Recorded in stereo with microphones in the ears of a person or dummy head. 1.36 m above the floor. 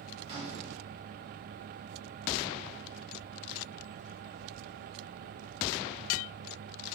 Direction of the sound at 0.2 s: 25° right (ahead or behind).